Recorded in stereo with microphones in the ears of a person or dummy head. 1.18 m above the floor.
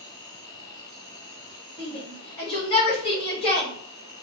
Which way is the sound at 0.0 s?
15° left (ahead or behind).